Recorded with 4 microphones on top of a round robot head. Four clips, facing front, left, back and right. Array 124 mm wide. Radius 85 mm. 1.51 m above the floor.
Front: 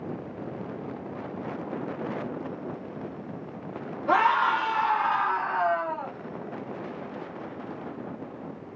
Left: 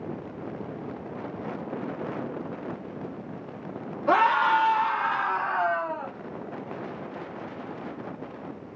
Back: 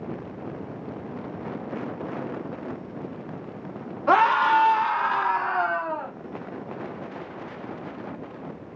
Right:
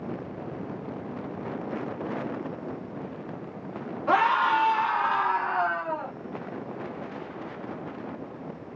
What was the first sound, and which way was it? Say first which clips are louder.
A scream: left 1 dB, back 4 dB; 170° left.